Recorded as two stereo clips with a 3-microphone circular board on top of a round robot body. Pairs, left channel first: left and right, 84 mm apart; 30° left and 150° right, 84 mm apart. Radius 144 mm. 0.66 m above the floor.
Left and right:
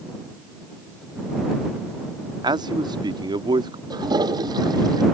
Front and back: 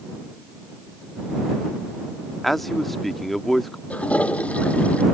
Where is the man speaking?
60° right.